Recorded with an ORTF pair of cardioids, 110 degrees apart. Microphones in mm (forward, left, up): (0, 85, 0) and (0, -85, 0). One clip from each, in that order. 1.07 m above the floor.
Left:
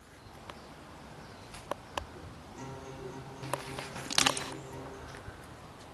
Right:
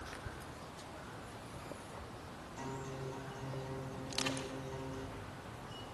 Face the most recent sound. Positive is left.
turn(degrees=65)